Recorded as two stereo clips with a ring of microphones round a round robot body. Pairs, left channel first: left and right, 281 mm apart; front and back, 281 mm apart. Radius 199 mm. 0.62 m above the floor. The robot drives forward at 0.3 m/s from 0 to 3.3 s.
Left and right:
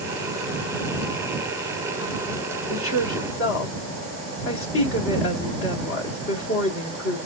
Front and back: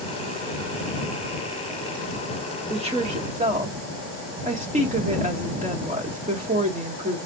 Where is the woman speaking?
115° left, 1.4 m; by 7.3 s 120° left, 1.5 m.